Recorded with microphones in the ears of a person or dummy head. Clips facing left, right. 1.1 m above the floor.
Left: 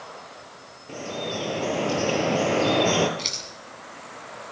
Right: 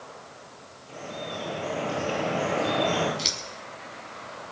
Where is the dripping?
70° left (ahead or behind), 5.5 m.